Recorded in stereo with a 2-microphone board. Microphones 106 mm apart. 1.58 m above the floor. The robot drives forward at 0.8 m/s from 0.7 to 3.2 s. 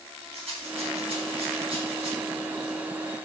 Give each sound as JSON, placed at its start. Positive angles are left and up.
{"t": 0.3, "sound": "a rattle", "side_deg": -75, "distance_m": 4.0}